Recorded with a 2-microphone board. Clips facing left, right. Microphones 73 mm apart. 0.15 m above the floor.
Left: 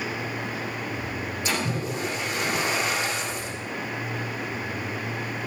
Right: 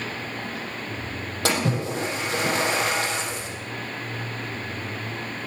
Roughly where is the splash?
Right.